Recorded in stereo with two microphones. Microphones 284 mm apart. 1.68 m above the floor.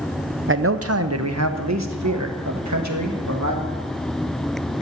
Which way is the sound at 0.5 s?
45° right (ahead or behind).